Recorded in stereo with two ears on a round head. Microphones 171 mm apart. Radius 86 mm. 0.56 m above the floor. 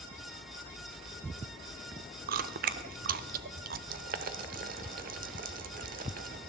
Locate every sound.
2.3 s chewing: 50° right (ahead or behind), 0.6 m
3.9 s boiling: 50° right (ahead or behind), 1.1 m